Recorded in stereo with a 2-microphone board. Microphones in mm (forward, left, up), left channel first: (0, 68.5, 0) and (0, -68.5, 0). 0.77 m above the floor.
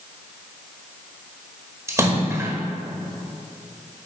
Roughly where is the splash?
Right.